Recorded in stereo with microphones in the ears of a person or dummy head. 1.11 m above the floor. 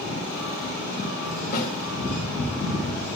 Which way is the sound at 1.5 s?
55° left (ahead or behind).